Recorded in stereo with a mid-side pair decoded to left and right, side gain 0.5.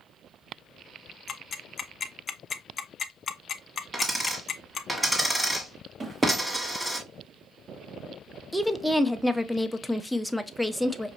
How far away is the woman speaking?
About 0.6 m.